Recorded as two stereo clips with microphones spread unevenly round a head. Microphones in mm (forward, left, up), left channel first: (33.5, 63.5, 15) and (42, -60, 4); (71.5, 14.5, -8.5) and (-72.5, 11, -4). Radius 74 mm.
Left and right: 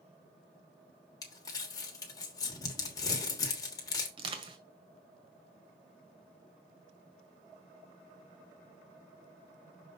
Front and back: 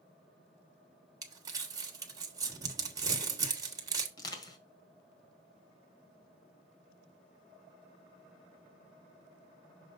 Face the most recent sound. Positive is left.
turn(degrees=-55)